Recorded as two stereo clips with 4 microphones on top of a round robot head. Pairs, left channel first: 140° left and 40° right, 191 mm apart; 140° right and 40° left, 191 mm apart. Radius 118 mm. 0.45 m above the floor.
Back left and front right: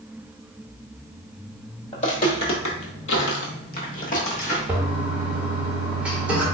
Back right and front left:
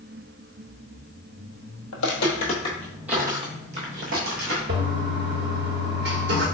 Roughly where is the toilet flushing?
Ahead left.